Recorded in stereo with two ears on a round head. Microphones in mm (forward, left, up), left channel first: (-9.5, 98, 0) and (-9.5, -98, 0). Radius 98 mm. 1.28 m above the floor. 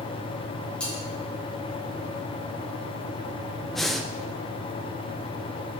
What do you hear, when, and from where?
0.8 s cutlery clinking: 5° left (ahead or behind), 4 m
3.7 s breathing: centre (ahead or behind), 0.6 m